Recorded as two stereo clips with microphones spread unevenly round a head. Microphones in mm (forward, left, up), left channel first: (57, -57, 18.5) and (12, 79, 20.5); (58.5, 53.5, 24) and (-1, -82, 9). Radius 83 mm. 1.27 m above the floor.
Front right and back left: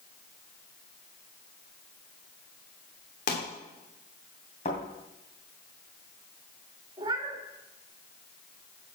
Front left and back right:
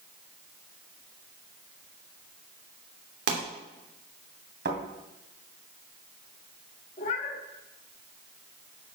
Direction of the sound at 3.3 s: 115° right.